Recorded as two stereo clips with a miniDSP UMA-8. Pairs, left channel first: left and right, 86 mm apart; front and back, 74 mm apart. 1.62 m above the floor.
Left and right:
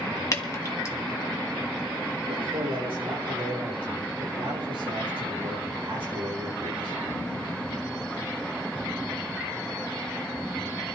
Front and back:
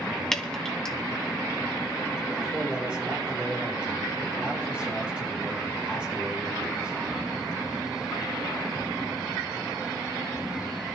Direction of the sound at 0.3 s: 80° left.